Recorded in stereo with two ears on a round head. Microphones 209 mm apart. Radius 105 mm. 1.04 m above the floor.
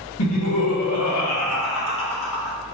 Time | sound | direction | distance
0.2 | laughter | 75° left (ahead or behind) | 1.7 m